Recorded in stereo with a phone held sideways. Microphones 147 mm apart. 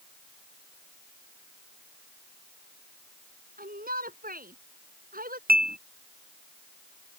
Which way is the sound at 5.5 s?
85° right.